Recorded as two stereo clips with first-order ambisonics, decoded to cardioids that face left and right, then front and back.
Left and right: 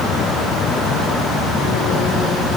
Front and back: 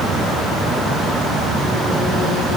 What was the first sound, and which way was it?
Only background noise.